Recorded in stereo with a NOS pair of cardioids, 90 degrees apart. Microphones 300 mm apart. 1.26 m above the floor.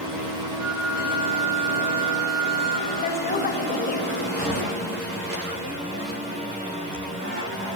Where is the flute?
50° right, 2 m.